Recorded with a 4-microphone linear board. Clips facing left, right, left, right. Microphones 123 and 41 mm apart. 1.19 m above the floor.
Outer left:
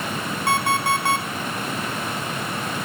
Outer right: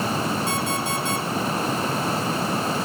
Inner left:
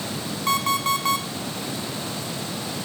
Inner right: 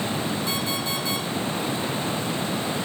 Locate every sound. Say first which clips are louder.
0.5 s an alarm clock: outer left 4 dB, inner left 5 dB; 60° left (ahead or behind), 4 m